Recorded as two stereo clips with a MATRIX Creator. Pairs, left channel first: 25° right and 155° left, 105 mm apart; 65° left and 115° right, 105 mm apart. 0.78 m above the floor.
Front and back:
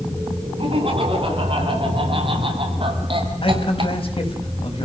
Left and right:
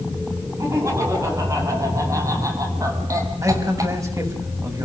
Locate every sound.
0.6 s laughter: 170° right, 9.5 m
3.4 s a man speaking: 55° right, 5.5 m